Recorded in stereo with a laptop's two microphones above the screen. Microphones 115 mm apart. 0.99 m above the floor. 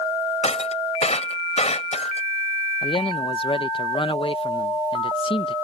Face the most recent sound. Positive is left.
turn(degrees=50)  # may be behind; listen again after turning